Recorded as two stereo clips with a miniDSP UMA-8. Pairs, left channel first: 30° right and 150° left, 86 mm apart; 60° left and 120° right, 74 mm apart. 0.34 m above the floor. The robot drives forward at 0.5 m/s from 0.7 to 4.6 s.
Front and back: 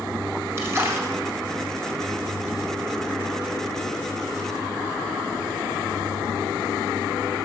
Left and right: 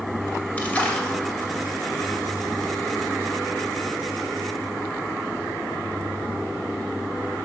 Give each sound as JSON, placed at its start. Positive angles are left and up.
{"t": 0.6, "sound": "a splash", "azimuth_deg": 115, "distance_m": 1.9}